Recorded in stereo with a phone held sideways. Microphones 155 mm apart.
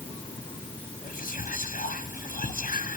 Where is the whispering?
60° left (ahead or behind), 1.1 m.